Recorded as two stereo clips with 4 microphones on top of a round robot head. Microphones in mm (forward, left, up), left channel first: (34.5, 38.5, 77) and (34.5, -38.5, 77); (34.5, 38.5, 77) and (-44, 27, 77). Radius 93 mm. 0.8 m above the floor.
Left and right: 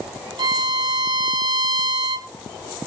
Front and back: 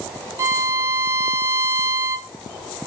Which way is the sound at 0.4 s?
115° right.